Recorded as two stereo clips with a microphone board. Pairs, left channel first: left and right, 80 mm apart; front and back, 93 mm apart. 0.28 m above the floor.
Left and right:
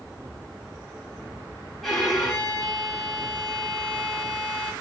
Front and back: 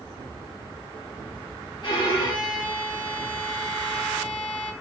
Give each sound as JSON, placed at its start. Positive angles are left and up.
{"t": 1.8, "sound": "a violin", "azimuth_deg": 0, "distance_m": 0.9}